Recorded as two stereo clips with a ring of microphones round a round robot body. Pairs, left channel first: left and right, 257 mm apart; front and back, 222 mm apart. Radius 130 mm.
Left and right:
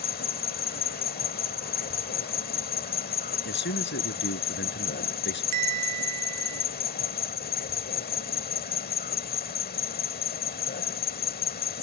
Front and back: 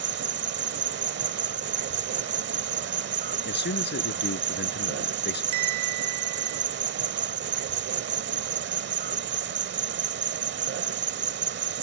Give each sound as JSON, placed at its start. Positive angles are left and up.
{"t": 0.0, "sound": "an insect", "azimuth_deg": 145}
{"t": 3.5, "sound": "a man speaking", "azimuth_deg": 40}
{"t": 5.5, "sound": "a bell", "azimuth_deg": -145}